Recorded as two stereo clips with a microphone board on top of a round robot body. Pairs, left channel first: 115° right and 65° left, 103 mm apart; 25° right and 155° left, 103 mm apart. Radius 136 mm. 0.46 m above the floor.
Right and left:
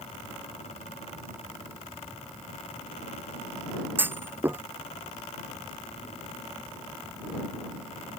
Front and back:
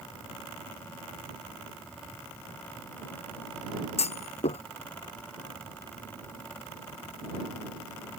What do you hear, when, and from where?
4.0 s a clunk: 5° right